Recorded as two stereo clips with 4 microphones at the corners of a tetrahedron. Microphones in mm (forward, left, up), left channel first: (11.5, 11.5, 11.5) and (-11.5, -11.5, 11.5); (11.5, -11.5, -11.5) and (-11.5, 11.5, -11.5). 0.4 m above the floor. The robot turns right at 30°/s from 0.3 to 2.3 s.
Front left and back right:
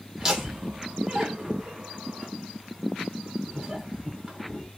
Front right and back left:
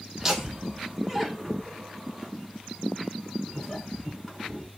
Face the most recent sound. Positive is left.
turn(degrees=-125)